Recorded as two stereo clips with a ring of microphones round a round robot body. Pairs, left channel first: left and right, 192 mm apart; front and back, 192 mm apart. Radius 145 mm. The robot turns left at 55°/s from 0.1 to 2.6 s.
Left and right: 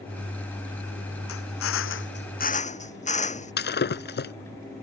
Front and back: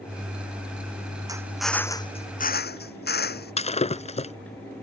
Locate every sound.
1.3 s a drill: 110° left; by 3.5 s 35° left
3.6 s breaking glass: 55° left